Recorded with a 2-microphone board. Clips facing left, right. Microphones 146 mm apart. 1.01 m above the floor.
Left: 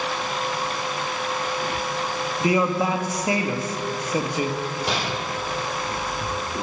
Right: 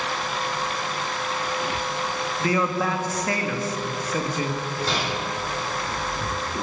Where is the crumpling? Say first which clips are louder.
Left 1 dB; 15° left (ahead or behind), 4 m.